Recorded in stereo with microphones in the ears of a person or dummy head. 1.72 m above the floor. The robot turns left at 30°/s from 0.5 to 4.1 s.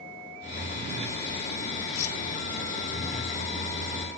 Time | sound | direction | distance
1.9 | cutlery clinking | 65° left (ahead or behind) | ?